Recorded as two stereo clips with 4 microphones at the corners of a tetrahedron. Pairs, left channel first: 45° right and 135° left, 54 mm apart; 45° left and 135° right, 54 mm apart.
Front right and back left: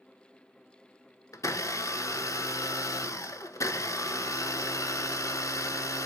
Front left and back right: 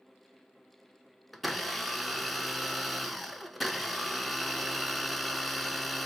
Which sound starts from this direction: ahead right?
A blender, at 1.3 s.